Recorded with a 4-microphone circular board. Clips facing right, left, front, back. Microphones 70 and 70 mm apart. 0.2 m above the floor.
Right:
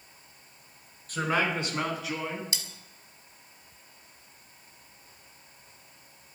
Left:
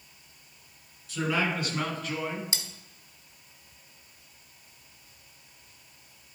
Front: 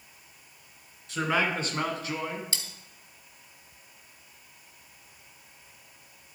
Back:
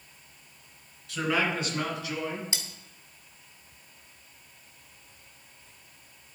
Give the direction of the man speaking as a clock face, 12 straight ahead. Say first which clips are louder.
Right 1 dB, even; 2 o'clock.